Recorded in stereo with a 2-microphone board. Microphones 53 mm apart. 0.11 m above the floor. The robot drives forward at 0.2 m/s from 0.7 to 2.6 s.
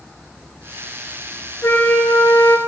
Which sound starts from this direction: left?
A flute, at 1.6 s.